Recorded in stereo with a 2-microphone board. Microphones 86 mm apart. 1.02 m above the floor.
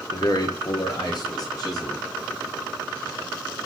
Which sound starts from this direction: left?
A man speaking, at 0.1 s.